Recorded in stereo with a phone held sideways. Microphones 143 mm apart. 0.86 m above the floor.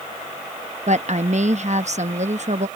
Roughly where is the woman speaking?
Right.